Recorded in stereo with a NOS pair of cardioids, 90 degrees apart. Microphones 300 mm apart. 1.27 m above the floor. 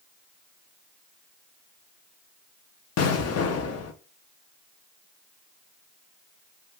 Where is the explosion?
60° left, 0.7 m.